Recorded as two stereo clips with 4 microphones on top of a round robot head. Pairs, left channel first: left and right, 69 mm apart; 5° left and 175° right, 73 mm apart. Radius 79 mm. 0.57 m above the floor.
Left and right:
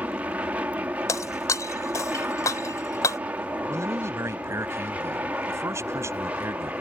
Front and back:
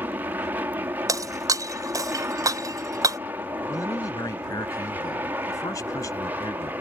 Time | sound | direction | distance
0.0 | an aircraft | 140° right | ?
1.1 | breaking glass | 145° left | ?
3.7 | a man speaking | 45° right | ?